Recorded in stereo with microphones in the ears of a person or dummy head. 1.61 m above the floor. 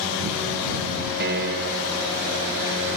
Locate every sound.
1.2 s a piano: 55° right (ahead or behind)